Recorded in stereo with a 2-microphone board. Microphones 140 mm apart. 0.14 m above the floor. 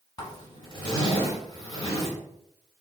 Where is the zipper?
30° left (ahead or behind), 1.4 m.